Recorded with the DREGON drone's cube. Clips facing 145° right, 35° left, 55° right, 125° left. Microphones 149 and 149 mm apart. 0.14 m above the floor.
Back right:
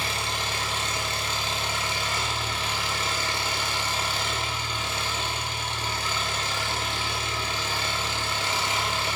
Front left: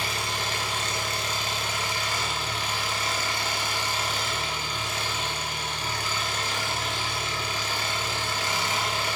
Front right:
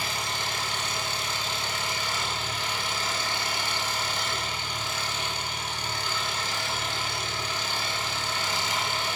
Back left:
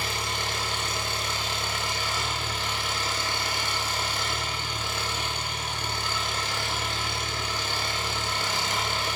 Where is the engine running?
150° left, 0.7 m.